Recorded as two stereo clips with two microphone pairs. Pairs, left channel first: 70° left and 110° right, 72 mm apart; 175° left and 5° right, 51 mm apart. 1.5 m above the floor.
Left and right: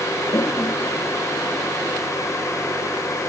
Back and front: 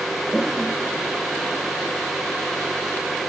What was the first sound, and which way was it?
A toilet flushing, 90° left.